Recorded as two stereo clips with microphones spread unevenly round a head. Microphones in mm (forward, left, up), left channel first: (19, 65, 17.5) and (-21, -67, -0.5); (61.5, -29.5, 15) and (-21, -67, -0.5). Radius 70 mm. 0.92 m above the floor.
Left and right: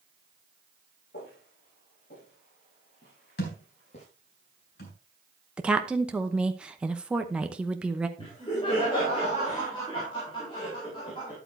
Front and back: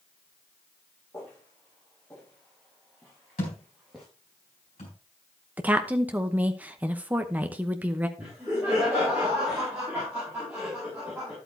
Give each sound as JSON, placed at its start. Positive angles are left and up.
{"t": 1.1, "sound": "footsteps", "azimuth_deg": 95, "distance_m": 7.5}
{"t": 3.4, "sound": "a thud", "azimuth_deg": 60, "distance_m": 3.5}
{"t": 5.6, "sound": "a woman speaking", "azimuth_deg": -165, "distance_m": 0.8}
{"t": 8.2, "sound": "laughter", "azimuth_deg": 130, "distance_m": 4.0}